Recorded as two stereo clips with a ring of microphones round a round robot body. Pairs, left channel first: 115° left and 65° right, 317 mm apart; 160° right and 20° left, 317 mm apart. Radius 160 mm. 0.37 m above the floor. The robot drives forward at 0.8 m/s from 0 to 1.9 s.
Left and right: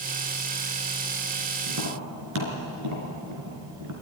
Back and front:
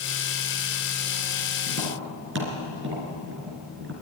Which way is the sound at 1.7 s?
30° right.